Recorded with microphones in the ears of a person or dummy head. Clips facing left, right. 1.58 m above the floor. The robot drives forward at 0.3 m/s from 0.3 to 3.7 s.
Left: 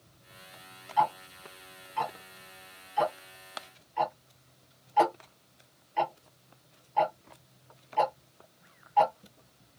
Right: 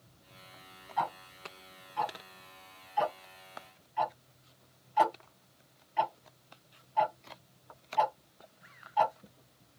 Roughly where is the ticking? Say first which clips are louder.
Left 7 dB; left.